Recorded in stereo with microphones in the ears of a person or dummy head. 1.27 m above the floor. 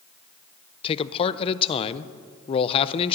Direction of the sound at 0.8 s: 35° left (ahead or behind).